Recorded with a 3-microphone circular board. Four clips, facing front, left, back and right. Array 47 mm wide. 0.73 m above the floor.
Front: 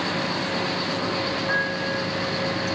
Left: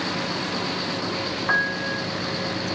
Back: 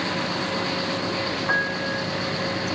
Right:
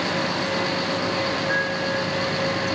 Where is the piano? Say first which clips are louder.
Even, back 2 dB; 105° left, 1.3 m.